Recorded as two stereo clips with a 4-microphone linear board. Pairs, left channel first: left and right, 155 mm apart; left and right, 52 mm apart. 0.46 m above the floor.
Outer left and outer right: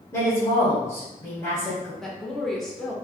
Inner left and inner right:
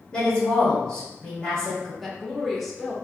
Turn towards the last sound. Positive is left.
turn(degrees=0)  # may be behind; listen again after turning